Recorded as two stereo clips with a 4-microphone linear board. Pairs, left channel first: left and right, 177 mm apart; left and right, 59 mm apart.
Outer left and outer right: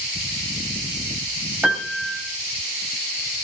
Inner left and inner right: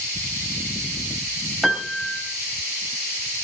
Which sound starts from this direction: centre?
A piano, at 1.6 s.